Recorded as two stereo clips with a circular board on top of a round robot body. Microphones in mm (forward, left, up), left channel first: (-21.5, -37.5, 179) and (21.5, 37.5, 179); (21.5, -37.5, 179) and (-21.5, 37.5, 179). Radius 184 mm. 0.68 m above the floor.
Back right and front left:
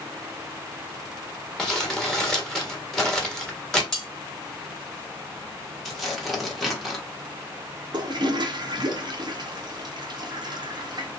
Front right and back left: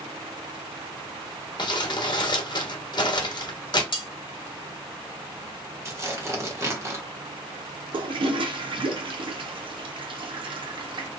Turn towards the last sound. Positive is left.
turn(degrees=100)